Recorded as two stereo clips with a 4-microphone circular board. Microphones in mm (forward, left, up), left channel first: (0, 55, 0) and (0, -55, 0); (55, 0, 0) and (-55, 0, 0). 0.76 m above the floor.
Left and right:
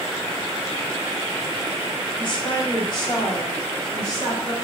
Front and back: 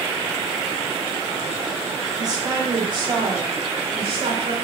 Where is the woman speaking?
125° left, 0.9 m; by 4.5 s 145° left, 2 m.